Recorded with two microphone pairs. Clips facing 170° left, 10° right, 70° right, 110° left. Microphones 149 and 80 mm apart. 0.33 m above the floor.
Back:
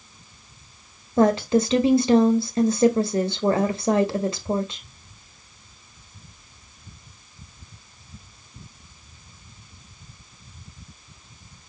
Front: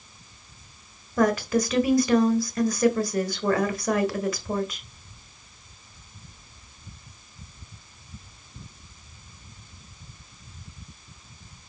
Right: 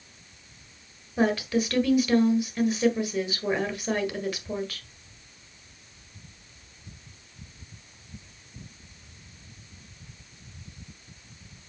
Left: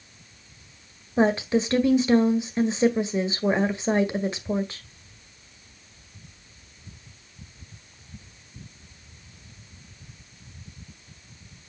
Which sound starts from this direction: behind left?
A woman speaking, at 1.2 s.